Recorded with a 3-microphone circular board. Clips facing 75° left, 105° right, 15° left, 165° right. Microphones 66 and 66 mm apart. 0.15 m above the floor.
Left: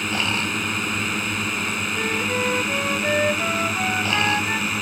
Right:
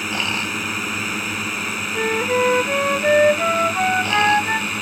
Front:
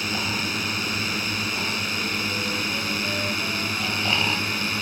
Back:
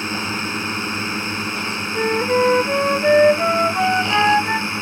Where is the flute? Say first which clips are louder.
Right 7 dB, back 11 dB; 165° right.